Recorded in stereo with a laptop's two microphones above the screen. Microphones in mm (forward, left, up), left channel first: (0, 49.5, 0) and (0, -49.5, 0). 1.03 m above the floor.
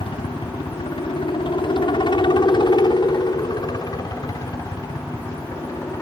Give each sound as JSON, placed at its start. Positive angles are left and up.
{"t": 0.0, "sound": "a helicopter", "side_deg": 65}